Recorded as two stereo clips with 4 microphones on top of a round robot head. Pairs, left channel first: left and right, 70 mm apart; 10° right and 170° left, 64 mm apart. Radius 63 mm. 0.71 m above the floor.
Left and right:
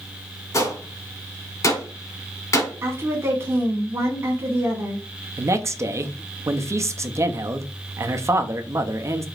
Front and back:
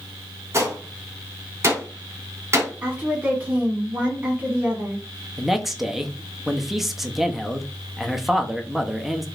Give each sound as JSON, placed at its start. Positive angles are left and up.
{"t": 0.5, "sound": "a gunshot", "azimuth_deg": 130, "distance_m": 1.9}
{"t": 2.8, "sound": "a woman speaking", "azimuth_deg": -125, "distance_m": 1.5}
{"t": 5.4, "sound": "a man speaking", "azimuth_deg": -105, "distance_m": 0.6}